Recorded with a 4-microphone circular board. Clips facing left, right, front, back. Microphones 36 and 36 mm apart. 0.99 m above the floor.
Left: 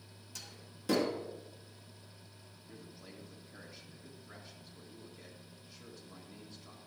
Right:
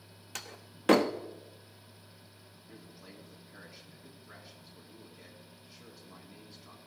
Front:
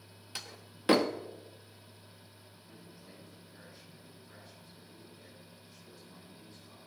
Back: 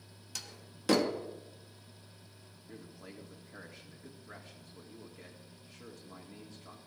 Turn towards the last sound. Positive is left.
turn(degrees=-175)